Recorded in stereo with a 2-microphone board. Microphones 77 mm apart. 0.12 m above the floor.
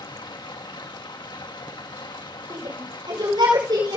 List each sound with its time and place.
0.0 s running water: 85° left, 1.6 m
2.5 s a shout: 75° right (ahead or behind), 6 m